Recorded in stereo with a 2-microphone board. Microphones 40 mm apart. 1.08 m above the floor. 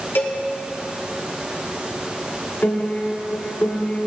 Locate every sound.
0.1 s a cowbell: 60° left (ahead or behind), 1.9 m
2.6 s a piano: 65° left (ahead or behind), 1.3 m